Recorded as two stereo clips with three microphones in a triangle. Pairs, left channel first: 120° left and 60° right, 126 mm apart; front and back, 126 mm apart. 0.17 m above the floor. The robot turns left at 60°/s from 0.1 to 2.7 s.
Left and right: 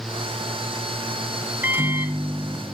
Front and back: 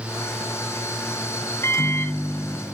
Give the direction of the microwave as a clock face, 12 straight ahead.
12 o'clock.